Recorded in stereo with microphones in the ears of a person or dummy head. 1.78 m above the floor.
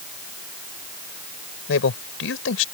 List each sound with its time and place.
1.7 s a man speaking: 90° left